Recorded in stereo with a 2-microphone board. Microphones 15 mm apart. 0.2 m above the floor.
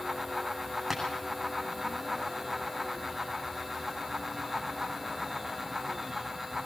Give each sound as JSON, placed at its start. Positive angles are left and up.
{"t": 0.9, "sound": "tapping", "side_deg": 0, "distance_m": 9.5}